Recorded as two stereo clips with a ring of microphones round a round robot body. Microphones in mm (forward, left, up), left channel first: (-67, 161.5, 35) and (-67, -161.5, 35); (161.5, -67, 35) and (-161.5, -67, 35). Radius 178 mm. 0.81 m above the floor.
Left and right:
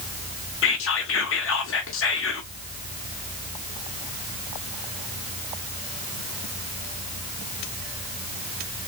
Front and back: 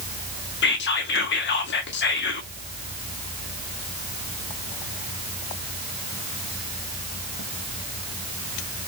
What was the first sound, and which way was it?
Whispering, 50° left.